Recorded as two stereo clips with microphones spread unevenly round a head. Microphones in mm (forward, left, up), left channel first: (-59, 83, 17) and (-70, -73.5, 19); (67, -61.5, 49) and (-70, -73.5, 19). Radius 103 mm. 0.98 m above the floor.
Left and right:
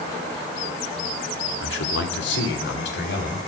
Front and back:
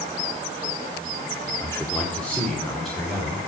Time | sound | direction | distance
1.6 | a man speaking | 80° left | 1.8 m